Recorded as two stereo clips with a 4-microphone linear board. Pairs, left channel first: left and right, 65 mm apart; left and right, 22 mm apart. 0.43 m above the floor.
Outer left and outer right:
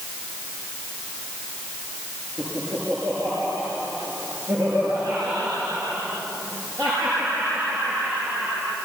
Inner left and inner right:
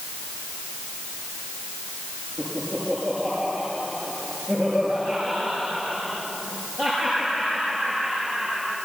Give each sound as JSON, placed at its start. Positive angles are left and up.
{"t": 2.4, "sound": "laughter", "side_deg": -60, "distance_m": 7.0}